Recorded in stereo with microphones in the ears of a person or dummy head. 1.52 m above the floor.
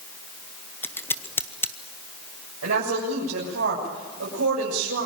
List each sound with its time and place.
0.8 s scissors: 10° left (ahead or behind), 0.6 m
2.6 s a woman speaking: 80° right, 7.5 m